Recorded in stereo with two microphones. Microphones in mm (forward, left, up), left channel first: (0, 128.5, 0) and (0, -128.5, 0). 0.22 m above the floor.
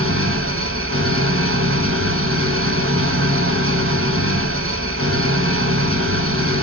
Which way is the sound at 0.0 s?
55° right (ahead or behind).